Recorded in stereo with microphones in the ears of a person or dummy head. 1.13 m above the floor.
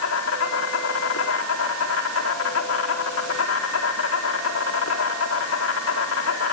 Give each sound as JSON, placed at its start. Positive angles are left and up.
{"t": 0.0, "sound": "an insect", "side_deg": 70, "distance_m": 4.0}